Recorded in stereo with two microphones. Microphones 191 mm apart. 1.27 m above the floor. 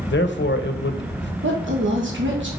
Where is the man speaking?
70° left (ahead or behind), 0.8 m.